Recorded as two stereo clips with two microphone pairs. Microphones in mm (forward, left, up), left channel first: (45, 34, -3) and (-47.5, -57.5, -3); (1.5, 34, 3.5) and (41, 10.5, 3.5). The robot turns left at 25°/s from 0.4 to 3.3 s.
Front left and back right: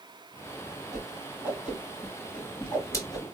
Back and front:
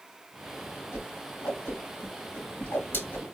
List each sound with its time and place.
0.9 s a whoosh: 165° left, 3.5 m; by 3.2 s 105° left, 3.5 m